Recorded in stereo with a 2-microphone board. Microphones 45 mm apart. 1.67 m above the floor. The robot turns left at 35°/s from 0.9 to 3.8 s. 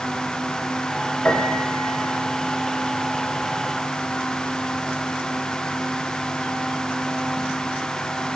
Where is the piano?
30° left (ahead or behind), 1.3 m; by 7.5 s 55° left (ahead or behind), 1.3 m.